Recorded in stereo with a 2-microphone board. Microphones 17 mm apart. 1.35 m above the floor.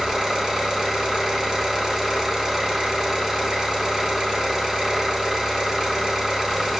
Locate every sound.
0.0 s an engine running: 45° right (ahead or behind), 5 m